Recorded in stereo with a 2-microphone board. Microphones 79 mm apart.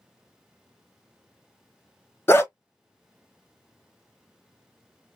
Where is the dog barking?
30° left (ahead or behind), 0.6 m.